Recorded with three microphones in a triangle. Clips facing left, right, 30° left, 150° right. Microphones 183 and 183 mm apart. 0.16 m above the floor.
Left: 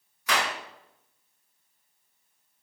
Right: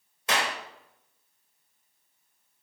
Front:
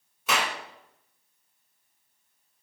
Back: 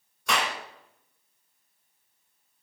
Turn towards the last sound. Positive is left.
turn(degrees=-50)